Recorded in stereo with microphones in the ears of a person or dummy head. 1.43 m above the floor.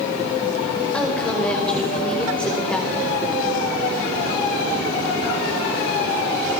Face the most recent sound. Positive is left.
turn(degrees=5)  # may be behind; listen again after turning